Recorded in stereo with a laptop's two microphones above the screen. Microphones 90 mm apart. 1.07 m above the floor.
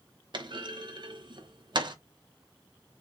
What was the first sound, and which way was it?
A clunk, 60° right (ahead or behind).